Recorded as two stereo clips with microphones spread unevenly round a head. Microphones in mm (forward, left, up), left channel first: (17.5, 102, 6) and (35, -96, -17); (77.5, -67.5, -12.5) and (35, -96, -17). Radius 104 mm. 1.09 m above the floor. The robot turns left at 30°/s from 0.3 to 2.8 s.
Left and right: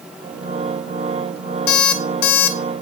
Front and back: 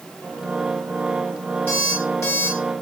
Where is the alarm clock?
105° left, 1.3 m; by 2.6 s 80° left, 1.3 m.